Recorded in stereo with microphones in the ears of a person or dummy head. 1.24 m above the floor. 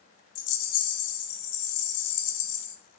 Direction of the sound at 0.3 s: 85° left.